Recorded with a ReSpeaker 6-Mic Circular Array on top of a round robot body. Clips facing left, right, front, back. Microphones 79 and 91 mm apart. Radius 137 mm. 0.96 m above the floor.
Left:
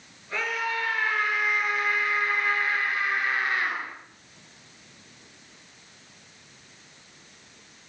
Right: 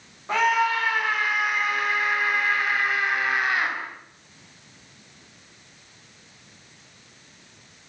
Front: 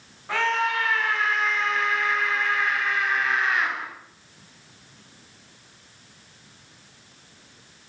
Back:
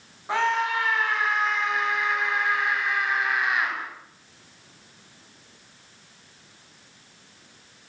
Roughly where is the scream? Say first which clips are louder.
Right 8 dB, even; right.